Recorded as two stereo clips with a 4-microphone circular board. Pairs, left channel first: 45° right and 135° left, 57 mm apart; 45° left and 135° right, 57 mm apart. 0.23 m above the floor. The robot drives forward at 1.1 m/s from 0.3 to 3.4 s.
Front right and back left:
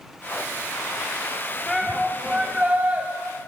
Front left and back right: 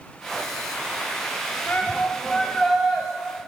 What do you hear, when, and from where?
1.7 s a shout: 35° left, 1.6 m; by 3.1 s 150° left, 1.7 m